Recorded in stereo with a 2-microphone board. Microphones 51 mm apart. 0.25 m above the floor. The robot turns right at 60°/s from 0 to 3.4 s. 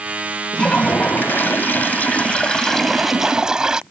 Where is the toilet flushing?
30° left; by 3.8 s 155° right.